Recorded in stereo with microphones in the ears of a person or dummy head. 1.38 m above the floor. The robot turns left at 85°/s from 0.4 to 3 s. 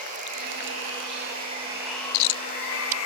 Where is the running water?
50° right, 1.6 m; by 3.1 s 90° left, 1.6 m.